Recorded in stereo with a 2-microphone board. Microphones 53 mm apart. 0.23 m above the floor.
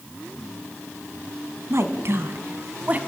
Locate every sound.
1.7 s a woman speaking: 55° right (ahead or behind), 2.5 m; by 3.0 s 30° right (ahead or behind), 2 m